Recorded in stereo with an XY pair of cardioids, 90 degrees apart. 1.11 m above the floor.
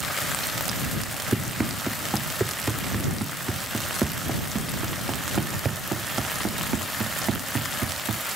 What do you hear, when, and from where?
1.3 s running footsteps: 10° right; by 8.4 s 55° right